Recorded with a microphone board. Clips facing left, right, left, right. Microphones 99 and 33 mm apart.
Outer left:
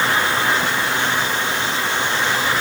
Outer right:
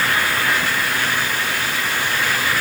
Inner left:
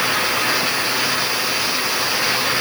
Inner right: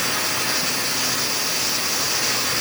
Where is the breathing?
No breathing in this recording.